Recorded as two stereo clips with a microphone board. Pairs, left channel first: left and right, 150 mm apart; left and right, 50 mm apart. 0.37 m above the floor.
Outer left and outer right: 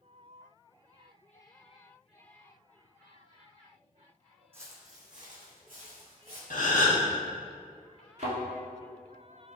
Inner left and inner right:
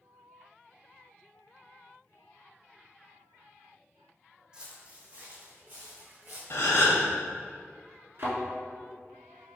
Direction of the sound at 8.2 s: 50° right (ahead or behind).